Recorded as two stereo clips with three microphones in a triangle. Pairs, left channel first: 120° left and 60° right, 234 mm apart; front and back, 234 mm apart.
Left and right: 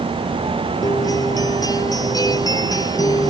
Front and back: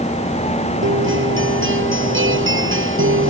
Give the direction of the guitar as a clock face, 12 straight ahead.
6 o'clock.